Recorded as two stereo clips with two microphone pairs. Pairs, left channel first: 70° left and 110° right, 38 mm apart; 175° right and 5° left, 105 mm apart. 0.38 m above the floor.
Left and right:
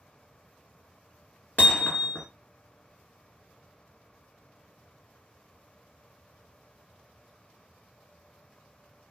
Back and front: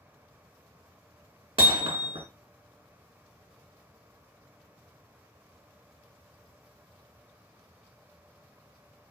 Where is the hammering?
35° left, 1.0 m.